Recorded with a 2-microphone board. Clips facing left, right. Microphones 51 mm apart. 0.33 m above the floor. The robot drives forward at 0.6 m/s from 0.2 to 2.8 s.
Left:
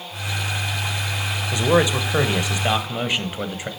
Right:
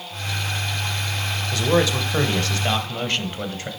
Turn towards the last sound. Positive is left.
turn(degrees=15)  # may be behind; listen again after turning